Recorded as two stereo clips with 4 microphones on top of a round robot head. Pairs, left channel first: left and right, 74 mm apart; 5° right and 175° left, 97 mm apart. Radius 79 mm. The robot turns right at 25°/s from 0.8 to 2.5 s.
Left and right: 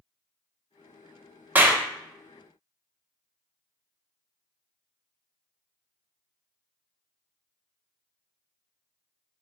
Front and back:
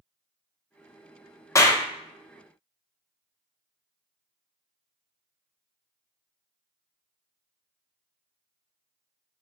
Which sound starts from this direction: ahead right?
A clap, at 1.6 s.